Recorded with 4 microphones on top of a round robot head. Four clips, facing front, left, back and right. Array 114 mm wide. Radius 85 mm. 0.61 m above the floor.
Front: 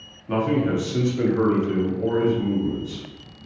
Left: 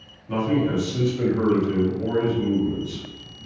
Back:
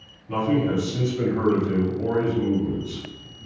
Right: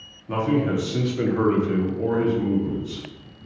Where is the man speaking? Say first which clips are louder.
Even, front 1 dB; 25° right, 1.0 m; by 3.0 s 140° right, 1.2 m.